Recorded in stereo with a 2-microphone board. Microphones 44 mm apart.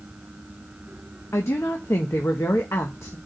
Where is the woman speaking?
85° left, 1.0 m.